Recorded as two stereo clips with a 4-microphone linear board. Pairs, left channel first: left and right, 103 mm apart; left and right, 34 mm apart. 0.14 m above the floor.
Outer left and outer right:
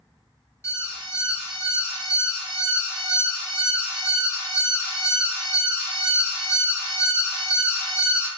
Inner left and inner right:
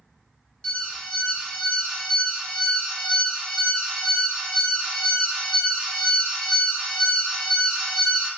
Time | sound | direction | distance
0.6 | an alarm | 25° left (ahead or behind) | 1.3 m